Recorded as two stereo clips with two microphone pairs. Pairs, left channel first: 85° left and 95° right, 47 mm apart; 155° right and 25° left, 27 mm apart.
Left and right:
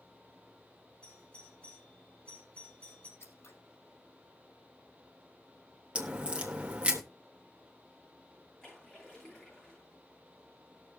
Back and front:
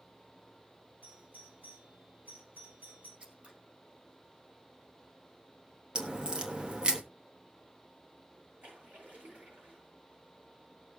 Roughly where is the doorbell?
Ahead.